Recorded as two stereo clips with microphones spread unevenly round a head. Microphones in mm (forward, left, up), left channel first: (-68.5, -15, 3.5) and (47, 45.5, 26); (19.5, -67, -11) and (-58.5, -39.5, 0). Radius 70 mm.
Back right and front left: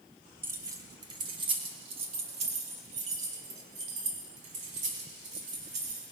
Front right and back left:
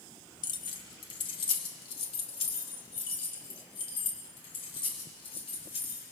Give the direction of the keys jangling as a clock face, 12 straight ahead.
1 o'clock.